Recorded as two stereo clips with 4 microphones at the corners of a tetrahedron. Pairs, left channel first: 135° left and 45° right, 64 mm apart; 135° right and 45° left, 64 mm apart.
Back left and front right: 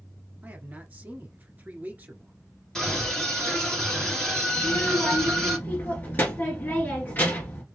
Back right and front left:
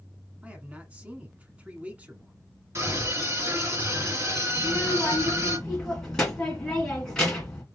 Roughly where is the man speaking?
Ahead.